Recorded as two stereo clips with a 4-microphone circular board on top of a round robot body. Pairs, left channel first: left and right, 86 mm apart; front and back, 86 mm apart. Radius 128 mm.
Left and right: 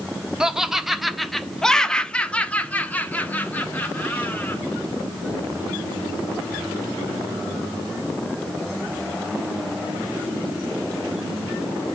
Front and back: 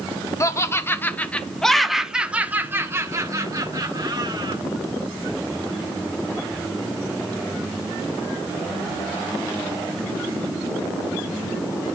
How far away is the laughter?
About 1.4 m.